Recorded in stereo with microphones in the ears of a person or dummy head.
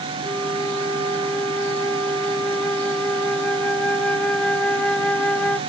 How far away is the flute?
About 0.6 m.